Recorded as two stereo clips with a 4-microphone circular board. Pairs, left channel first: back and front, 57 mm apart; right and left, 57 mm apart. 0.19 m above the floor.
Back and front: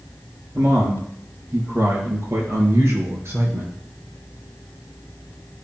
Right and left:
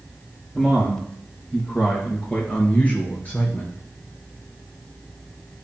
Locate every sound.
0.6 s a man speaking: 10° right, 4 m; by 3.8 s 35° right, 3.5 m